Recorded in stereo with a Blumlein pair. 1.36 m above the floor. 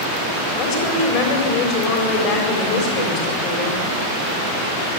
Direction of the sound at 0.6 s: 35° left.